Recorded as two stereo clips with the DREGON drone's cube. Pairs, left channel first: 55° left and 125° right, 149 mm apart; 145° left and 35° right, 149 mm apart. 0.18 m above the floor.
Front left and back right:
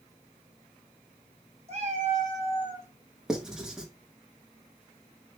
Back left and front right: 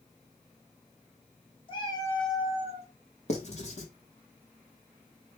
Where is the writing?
150° left, 0.7 m.